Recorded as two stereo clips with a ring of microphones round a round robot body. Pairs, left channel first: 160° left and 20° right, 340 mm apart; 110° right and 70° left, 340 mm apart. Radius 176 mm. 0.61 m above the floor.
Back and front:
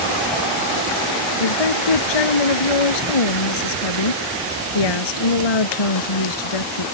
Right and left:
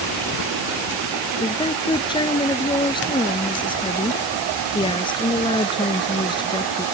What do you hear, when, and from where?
1.4 s a woman speaking: 170° left